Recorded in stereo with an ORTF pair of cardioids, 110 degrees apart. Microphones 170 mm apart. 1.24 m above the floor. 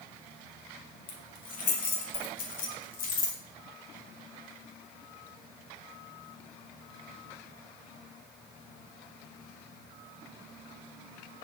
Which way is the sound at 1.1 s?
55° left.